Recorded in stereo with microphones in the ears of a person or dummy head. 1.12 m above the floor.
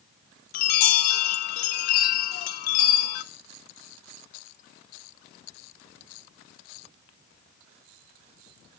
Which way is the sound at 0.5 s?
40° left (ahead or behind).